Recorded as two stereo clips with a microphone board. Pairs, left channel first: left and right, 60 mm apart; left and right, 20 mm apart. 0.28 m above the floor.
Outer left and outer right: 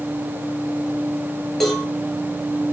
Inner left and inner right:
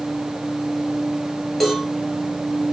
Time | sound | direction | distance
1.6 | a cowbell | 5° left (ahead or behind) | 5.5 m